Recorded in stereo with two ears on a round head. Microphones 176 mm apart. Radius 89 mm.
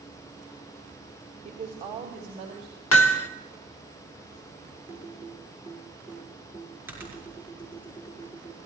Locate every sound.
1.4 s a woman speaking: 35° right (ahead or behind), 2.5 m
2.9 s hammering: 80° left, 1.0 m
4.9 s typing on a keyboard: 10° right (ahead or behind), 6 m